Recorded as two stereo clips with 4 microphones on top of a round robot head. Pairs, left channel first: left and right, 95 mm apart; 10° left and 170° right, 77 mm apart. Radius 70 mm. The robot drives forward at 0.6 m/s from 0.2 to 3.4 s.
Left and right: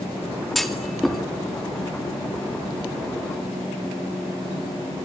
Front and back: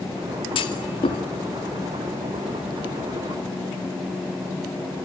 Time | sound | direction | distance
0.6 | a clunk | straight ahead | 3 m